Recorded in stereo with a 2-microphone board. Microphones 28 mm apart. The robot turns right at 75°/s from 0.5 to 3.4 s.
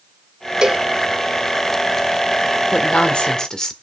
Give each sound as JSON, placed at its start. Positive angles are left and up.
{"t": 0.6, "sound": "a cowbell", "side_deg": -30, "distance_m": 0.7}
{"t": 2.7, "sound": "a woman speaking", "azimuth_deg": 100, "distance_m": 1.8}